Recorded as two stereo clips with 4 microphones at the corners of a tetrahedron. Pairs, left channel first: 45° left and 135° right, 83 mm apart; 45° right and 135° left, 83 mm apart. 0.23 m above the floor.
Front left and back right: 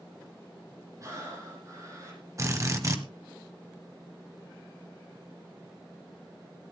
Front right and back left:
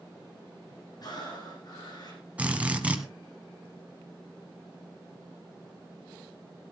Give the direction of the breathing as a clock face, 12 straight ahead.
3 o'clock.